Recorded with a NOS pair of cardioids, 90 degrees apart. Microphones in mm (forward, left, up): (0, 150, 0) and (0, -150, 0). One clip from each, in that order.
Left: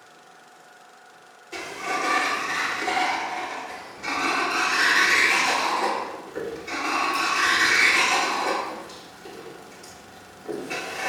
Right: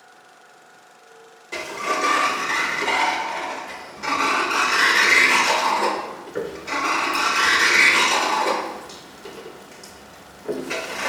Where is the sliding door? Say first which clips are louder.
Right 4 dB; 30° right, 0.5 m.